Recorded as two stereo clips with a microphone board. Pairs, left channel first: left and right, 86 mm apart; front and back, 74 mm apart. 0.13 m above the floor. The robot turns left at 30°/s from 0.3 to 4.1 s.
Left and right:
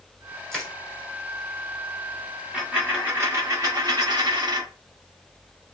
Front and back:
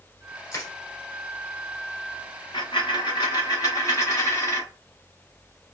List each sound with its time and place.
0.5 s crushing: 10° left, 1.3 m; by 0.7 s 5° left, 1.3 m
2.5 s a dropped coin: 5° right, 1.5 m; by 4.7 s 50° right, 1.5 m